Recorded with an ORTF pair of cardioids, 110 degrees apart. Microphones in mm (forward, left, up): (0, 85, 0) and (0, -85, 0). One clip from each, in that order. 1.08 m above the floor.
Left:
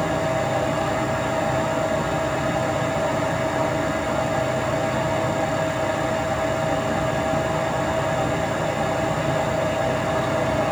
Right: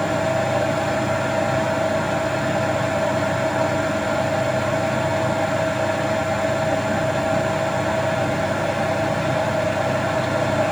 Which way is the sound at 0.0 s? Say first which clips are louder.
Right 2 dB; 15° right.